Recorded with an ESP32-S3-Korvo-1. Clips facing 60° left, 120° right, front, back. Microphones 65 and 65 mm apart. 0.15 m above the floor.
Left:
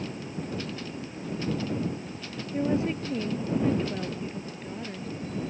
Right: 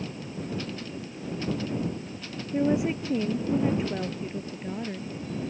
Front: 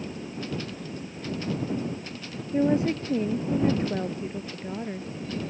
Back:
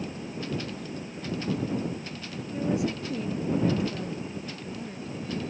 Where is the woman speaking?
50° right.